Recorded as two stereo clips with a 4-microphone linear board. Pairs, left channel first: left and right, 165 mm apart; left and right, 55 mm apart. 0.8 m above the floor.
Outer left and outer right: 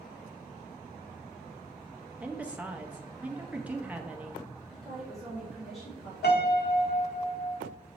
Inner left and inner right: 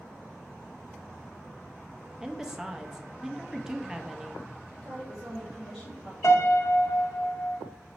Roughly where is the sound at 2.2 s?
Centre.